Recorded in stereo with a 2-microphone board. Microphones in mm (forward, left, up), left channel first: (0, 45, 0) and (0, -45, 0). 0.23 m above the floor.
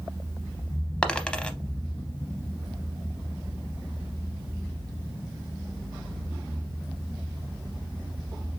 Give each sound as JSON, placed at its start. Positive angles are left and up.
{"t": 1.0, "sound": "a dropped coin", "side_deg": 10, "distance_m": 0.6}